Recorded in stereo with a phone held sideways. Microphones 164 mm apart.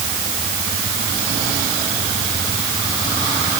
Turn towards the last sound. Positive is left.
No sound to turn to.